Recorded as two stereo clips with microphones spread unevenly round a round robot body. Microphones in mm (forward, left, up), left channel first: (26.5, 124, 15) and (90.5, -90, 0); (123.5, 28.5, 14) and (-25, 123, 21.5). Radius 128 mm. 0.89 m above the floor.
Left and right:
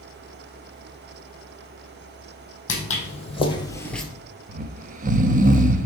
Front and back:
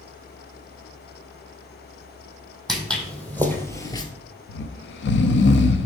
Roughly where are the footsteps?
Ahead left.